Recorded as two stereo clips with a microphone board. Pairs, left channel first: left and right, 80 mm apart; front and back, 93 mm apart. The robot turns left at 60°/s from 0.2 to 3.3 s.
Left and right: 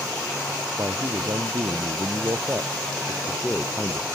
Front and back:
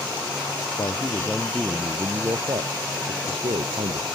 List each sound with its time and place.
0.8 s a man speaking: 40° right; by 4.1 s 170° left